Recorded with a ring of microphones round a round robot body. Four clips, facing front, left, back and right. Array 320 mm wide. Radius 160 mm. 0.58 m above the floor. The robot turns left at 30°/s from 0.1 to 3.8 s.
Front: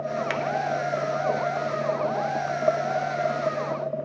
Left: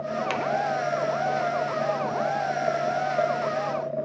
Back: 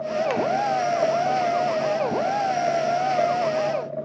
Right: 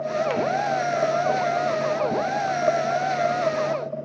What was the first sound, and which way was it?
A finger snap, 65° left.